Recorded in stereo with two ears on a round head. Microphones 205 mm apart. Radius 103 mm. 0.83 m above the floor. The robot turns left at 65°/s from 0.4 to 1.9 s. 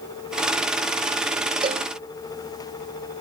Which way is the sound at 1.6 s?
20° right (ahead or behind).